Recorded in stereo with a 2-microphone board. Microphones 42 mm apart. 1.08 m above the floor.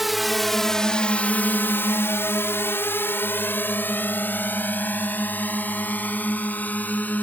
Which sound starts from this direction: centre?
A drone, at 0.0 s.